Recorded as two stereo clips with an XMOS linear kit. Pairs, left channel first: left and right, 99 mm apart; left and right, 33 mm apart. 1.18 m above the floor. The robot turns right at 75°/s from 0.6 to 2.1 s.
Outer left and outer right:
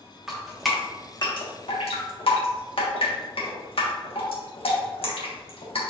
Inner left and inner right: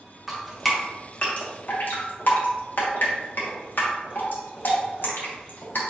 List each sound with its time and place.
0.3 s dripping: 5° right (ahead or behind), 1.1 m; by 5.9 s 65° left (ahead or behind), 1.1 m